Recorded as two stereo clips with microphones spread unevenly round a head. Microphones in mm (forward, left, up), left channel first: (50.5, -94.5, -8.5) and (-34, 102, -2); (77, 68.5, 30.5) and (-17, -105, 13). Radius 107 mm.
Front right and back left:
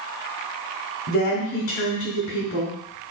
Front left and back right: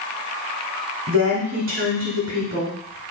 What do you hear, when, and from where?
1.1 s a woman speaking: 100° right, 1.2 m